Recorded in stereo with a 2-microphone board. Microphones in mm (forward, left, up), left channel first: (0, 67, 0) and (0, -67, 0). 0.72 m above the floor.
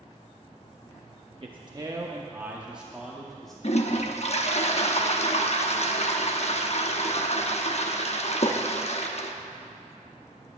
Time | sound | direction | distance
1.4 | a man speaking | 45° right (ahead or behind) | 0.8 m
3.6 | a toilet flushing | 55° left (ahead or behind) | 0.9 m